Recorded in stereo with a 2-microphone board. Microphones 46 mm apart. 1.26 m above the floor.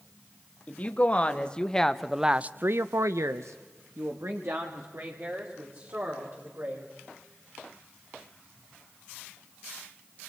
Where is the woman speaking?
30° left (ahead or behind), 2 m; by 6.9 s 55° right (ahead or behind), 4.5 m.